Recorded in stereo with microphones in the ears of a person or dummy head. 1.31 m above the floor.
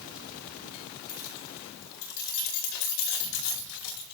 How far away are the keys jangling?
About 3.5 m.